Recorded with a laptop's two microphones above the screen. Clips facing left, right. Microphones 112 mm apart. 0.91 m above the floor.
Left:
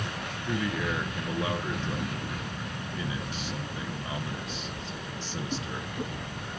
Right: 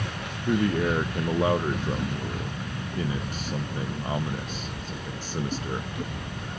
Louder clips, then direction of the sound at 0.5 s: Right 7 dB; 45° right (ahead or behind).